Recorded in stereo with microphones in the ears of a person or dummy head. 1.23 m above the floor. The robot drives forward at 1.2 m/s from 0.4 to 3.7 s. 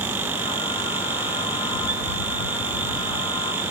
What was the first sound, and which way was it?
Only background noise.